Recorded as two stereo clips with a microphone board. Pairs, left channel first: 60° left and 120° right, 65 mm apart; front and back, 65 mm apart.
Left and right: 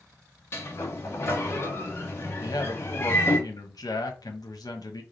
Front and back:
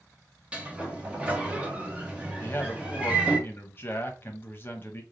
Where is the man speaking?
55° left, 1.0 m.